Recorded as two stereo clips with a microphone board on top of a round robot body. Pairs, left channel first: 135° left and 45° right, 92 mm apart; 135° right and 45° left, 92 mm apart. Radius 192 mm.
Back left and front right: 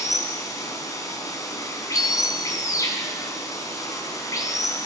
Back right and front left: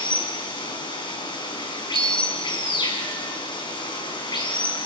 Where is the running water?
170° right, 5 m.